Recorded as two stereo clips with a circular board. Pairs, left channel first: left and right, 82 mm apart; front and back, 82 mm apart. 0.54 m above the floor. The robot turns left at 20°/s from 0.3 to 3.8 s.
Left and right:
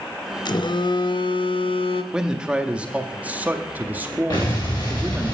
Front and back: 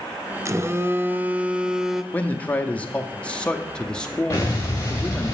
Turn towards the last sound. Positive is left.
turn(degrees=55)